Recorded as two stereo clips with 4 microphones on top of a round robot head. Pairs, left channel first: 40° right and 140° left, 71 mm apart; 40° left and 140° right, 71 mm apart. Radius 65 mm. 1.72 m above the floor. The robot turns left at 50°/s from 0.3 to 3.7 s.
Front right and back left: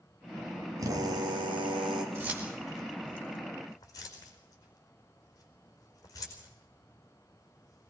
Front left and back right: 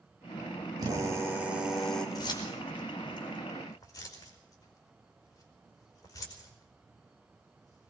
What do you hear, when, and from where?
0.8 s a drill: 175° right, 3.5 m; by 2.0 s 120° left, 3.5 m
2.1 s keys jangling: 80° left, 5 m; by 7.9 s 5° left, 5 m